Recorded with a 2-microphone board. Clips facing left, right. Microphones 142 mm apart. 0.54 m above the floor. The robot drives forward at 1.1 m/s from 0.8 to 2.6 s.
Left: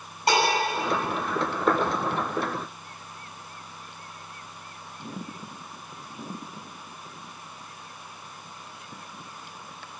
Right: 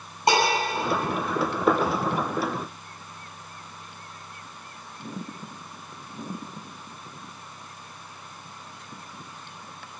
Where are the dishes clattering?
20° right (ahead or behind), 10 m.